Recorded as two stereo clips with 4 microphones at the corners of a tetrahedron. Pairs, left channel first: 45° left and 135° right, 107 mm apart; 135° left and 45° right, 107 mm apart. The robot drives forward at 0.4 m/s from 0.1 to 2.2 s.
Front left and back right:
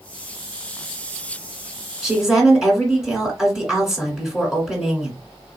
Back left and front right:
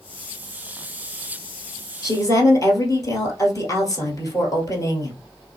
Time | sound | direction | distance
2.0 | a woman speaking | 140° left | 1.6 m